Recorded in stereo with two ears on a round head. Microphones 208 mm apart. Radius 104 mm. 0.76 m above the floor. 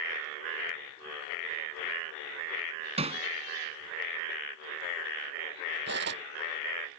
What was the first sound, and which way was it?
Hammering, 25° right (ahead or behind).